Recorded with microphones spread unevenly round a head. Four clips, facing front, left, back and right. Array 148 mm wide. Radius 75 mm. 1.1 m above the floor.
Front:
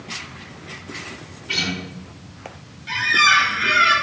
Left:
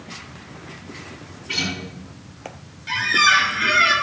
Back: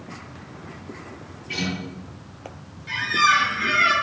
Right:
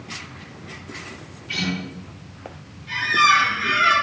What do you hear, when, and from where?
1.5 s a guitar: 35° left, 5 m
2.9 s a squeak: 55° left, 3 m